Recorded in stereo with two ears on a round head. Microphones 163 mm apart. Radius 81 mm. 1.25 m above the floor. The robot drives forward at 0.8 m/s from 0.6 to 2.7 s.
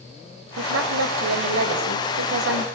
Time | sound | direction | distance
0.6 | a woman speaking | 85° right | 4.5 m